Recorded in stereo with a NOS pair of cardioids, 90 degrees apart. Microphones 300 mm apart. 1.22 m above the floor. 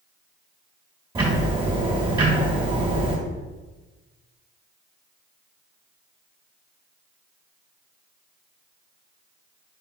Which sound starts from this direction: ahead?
Ticking, at 1.1 s.